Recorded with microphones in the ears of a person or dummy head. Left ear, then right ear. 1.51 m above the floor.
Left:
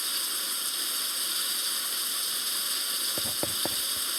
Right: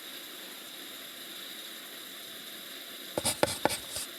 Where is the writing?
60° right (ahead or behind).